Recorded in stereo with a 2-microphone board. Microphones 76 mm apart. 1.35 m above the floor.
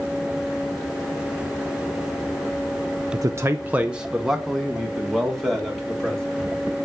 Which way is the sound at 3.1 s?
60° right (ahead or behind).